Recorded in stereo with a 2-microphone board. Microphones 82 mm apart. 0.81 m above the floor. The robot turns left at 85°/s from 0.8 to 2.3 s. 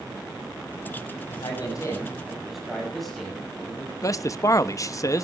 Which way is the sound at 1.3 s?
85° left.